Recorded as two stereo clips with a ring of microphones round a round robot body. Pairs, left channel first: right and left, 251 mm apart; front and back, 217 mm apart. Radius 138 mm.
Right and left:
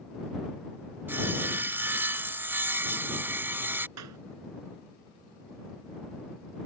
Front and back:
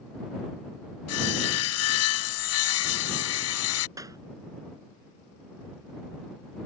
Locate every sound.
1.1 s sawing: 10° left
4.0 s a clap: 105° left